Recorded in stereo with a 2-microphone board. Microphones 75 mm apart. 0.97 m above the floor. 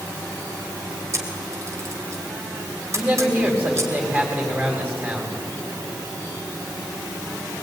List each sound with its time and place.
1.1 s a camera shutter: 40° right (ahead or behind), 3 m
3.0 s a man speaking: 25° right (ahead or behind), 4.5 m